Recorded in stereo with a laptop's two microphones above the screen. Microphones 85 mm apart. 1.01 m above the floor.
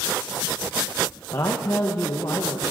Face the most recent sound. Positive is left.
turn(degrees=45)  # may be behind; listen again after turning